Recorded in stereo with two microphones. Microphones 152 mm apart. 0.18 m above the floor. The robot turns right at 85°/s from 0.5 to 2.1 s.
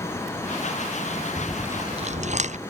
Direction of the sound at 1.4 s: 15° left (ahead or behind).